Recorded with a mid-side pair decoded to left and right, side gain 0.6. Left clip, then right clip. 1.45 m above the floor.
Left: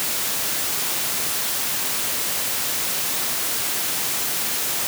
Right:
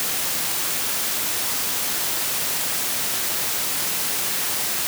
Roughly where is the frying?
No frying in this recording.